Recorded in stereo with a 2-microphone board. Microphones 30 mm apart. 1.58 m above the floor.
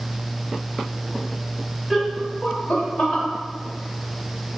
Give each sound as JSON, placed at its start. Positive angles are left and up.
{"t": 1.9, "sound": "laughter", "side_deg": 0, "distance_m": 0.8}